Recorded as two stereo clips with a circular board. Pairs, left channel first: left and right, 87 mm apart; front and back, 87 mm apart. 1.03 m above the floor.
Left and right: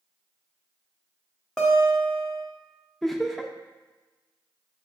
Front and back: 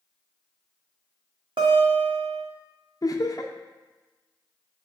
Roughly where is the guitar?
Behind.